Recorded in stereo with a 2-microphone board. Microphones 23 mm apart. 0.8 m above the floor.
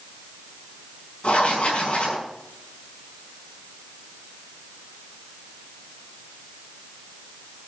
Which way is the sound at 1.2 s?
85° left.